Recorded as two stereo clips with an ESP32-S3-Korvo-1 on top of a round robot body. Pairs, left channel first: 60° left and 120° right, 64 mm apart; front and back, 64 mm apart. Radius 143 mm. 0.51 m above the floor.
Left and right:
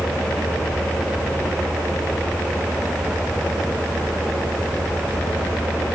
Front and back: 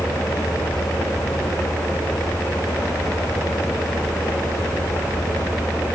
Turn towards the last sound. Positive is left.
No sound to turn to.